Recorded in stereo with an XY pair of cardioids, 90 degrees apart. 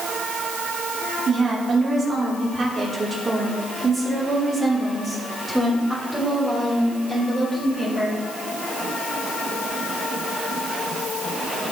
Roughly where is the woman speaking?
Ahead right.